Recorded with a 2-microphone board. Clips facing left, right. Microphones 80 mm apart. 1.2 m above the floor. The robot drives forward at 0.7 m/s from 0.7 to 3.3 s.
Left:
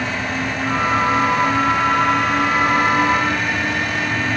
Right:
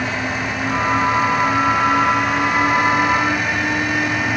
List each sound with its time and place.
Only background noise.